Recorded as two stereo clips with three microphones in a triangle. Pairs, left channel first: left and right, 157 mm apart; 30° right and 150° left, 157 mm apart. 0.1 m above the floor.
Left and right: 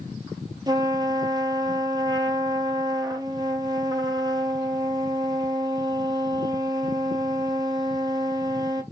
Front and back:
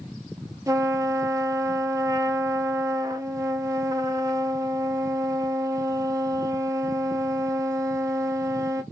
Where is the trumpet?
145° right, 0.6 m.